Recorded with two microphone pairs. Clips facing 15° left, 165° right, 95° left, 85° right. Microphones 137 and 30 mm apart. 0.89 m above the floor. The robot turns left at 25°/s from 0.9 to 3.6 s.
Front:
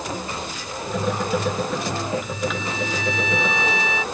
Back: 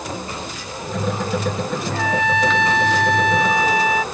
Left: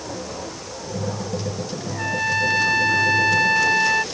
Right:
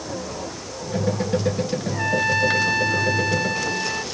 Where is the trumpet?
165° right; by 4.0 s 155° left.